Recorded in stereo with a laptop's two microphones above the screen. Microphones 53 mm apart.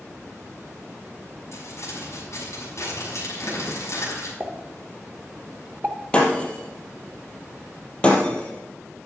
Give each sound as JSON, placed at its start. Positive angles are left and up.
{"t": 1.5, "sound": "crumpling", "side_deg": 60, "distance_m": 6.0}
{"t": 4.4, "sound": "a pop", "side_deg": -35, "distance_m": 1.1}
{"t": 6.1, "sound": "breaking glass", "side_deg": 20, "distance_m": 4.0}